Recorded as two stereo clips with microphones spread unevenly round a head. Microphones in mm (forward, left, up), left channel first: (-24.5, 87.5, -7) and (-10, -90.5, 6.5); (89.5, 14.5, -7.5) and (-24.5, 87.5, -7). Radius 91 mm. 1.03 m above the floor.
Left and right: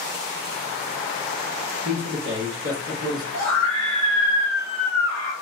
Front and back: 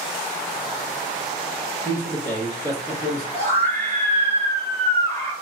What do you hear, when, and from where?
1.9 s a man speaking: 60° right, 0.6 m; by 3.2 s 65° right, 1.4 m
3.3 s a scream: 90° right, 1.2 m